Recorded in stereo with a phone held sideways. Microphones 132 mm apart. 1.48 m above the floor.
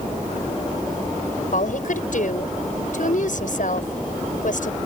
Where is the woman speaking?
70° left (ahead or behind).